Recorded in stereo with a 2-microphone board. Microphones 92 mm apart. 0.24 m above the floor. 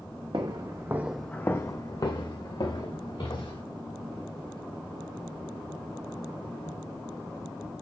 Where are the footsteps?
55° right (ahead or behind), 0.8 m; by 3.6 s 70° left (ahead or behind), 1.9 m.